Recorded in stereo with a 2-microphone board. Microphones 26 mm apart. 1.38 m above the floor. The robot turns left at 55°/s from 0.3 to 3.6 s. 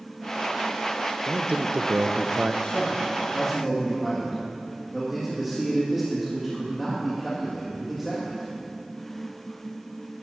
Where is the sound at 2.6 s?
60° left, 2 m; by 8.6 s 5° left, 2 m.